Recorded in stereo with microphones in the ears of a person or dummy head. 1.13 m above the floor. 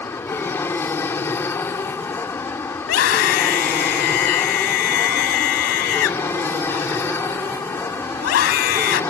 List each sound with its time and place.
0.0 s an aircraft: 15° left (ahead or behind)
2.8 s a scream: 65° left (ahead or behind)